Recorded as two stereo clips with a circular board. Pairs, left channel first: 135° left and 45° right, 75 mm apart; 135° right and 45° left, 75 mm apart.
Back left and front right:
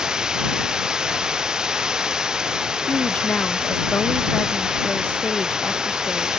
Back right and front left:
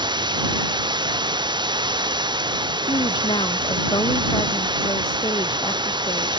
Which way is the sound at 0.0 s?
35° left.